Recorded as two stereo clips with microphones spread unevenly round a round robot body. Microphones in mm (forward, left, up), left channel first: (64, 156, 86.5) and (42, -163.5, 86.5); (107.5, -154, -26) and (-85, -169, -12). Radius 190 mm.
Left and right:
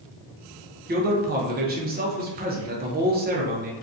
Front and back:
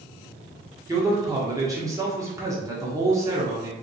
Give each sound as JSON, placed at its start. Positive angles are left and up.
{"t": 0.9, "sound": "a man speaking", "azimuth_deg": -110, "distance_m": 0.7}